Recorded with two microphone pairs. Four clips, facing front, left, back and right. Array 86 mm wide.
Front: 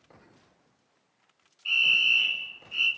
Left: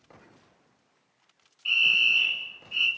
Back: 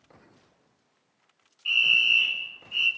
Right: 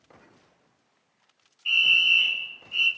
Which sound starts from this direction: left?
A fire alarm, at 1.6 s.